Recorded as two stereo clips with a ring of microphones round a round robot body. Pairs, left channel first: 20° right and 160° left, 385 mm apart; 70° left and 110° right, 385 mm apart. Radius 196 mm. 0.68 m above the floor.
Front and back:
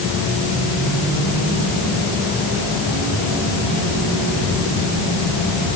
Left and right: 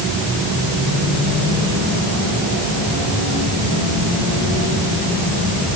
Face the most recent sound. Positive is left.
No sound to turn to.